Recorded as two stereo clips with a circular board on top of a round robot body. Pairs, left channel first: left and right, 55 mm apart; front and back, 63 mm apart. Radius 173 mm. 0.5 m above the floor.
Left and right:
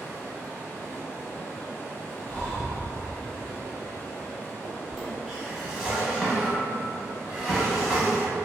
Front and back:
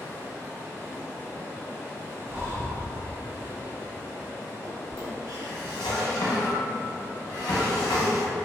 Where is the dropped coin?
I don't hear a dropped coin.